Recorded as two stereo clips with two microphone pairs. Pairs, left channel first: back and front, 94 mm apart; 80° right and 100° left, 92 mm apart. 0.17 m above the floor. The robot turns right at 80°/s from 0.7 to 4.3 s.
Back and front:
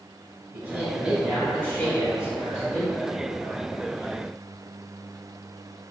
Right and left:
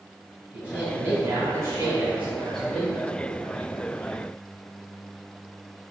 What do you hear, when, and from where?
0.5 s a man speaking: 40° left, 1.2 m; by 3.0 s 140° right, 1.2 m